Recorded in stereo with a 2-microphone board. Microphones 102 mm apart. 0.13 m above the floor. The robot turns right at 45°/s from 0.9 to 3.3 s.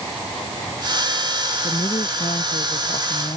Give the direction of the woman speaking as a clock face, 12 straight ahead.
10 o'clock.